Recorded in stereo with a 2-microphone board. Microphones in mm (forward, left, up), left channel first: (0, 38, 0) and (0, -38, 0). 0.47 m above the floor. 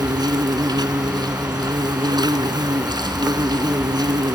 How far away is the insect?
About 1.6 m.